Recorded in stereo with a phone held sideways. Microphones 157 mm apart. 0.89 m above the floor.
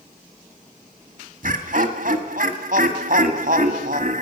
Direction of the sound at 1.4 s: 60° right (ahead or behind).